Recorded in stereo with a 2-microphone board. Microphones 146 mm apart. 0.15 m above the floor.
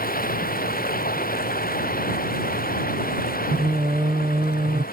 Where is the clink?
No clink in this recording.